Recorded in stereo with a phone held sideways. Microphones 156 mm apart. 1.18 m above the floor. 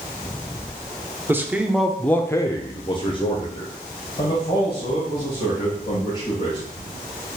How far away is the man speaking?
About 0.6 m.